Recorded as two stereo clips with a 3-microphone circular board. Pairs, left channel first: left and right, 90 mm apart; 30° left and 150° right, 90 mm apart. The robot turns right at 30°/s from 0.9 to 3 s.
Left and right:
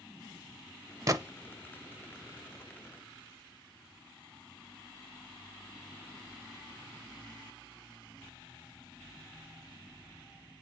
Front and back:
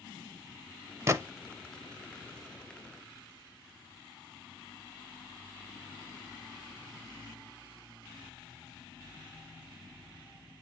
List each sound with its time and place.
1.1 s a gunshot: 110° right, 0.5 m; by 1.2 s 105° right, 0.5 m